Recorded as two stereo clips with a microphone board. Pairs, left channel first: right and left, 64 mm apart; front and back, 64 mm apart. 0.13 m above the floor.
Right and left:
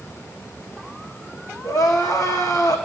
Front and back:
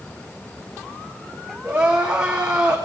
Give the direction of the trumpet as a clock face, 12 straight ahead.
I don't hear a trumpet.